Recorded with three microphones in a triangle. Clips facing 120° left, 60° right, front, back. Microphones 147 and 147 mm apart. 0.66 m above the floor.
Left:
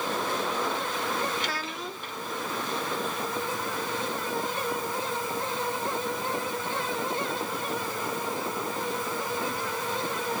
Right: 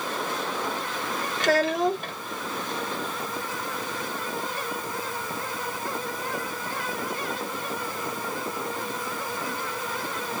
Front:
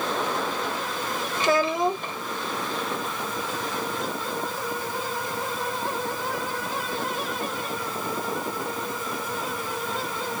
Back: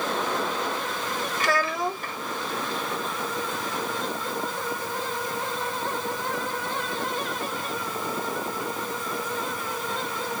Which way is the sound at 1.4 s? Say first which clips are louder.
Right 12 dB, front 5 dB; 65° right.